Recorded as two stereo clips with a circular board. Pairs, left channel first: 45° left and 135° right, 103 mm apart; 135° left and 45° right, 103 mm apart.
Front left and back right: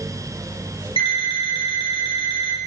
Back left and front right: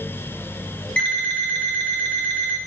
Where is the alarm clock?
60° left, 1.5 m.